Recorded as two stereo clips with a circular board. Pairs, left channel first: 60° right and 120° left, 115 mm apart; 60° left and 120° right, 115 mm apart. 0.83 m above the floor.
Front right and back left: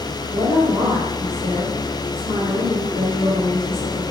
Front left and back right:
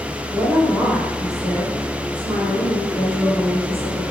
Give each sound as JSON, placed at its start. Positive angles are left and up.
{"t": 0.3, "sound": "a woman speaking", "azimuth_deg": 160, "distance_m": 3.5}